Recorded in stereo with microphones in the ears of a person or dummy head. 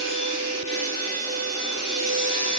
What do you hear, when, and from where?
0.0 s a machine running: 45° left (ahead or behind), 4 m